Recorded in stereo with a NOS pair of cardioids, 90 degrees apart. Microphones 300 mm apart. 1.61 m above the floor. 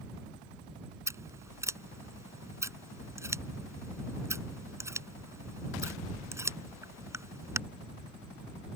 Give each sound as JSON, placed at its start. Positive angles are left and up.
{"t": 1.1, "sound": "scissors", "azimuth_deg": -10}